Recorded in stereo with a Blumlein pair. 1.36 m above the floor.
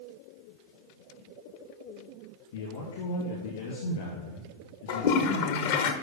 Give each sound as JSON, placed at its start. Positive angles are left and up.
{"t": 2.5, "sound": "a man speaking", "azimuth_deg": 60, "distance_m": 2.0}
{"t": 4.9, "sound": "a toilet flushing", "azimuth_deg": 50, "distance_m": 0.8}